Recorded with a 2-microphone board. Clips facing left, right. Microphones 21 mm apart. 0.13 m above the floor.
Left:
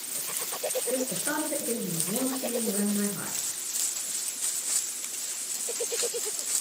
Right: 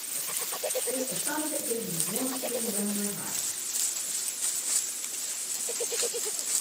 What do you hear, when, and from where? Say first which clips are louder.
0.9 s a woman speaking: left 2 dB; 45° left (ahead or behind), 1.5 m